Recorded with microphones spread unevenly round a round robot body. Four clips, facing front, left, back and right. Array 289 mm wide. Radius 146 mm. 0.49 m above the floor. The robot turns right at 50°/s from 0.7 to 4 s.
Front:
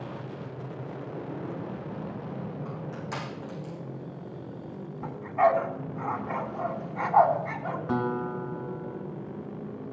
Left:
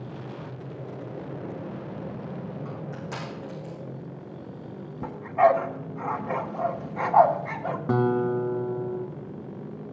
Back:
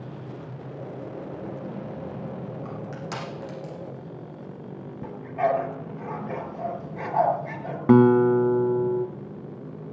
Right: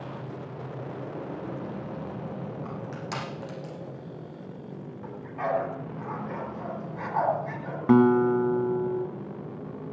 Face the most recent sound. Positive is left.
turn(degrees=-170)